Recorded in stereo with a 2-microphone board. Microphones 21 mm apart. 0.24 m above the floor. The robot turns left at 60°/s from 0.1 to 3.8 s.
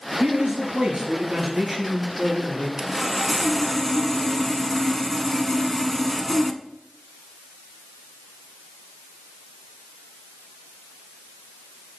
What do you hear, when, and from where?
0.2 s a man speaking: 65° right, 4.5 m; by 2.7 s 145° left, 4.5 m
2.8 s sawing: 140° right, 0.5 m; by 6.6 s 160° left, 0.5 m